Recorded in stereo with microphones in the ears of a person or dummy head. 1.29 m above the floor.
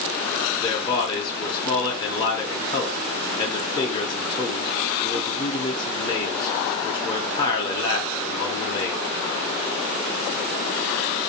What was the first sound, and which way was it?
A man speaking, 20° left (ahead or behind).